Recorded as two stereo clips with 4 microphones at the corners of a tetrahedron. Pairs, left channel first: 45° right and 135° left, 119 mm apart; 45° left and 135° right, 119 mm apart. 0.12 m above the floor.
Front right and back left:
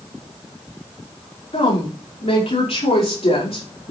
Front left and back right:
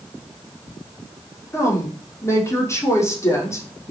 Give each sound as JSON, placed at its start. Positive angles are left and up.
{"t": 1.5, "sound": "a woman speaking", "azimuth_deg": -20, "distance_m": 5.5}